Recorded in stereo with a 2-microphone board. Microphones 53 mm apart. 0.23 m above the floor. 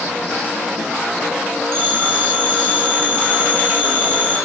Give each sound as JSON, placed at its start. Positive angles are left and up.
{"t": 1.7, "sound": "a phone ringing", "side_deg": -45, "distance_m": 1.1}